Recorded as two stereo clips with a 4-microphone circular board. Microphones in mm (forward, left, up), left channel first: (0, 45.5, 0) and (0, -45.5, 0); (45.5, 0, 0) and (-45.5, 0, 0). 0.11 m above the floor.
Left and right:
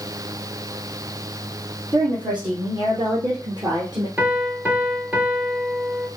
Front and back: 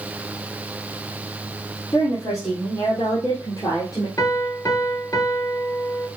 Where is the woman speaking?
60° right, 3.5 m; by 4.1 s 50° right, 2 m.